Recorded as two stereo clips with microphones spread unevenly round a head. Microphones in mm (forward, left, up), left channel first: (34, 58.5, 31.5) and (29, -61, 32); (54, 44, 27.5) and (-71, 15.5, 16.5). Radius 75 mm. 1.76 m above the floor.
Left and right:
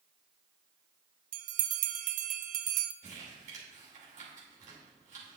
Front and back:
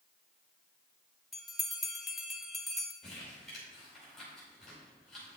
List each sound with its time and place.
1.3 s a bell: 75° right, 0.6 m
3.0 s crumpling: 75° right, 4.5 m